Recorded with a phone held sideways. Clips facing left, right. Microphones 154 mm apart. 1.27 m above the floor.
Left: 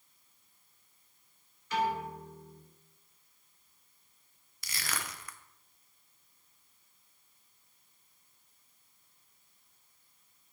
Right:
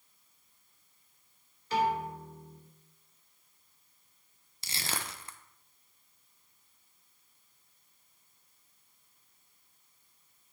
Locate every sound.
1.7 s a piano: 30° right (ahead or behind), 2.5 m
4.6 s crushing: 30° right (ahead or behind), 0.6 m